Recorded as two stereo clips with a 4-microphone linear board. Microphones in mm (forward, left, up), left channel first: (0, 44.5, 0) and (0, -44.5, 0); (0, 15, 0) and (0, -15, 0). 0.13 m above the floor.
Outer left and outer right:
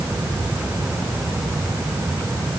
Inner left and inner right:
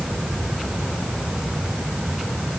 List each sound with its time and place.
Only background noise.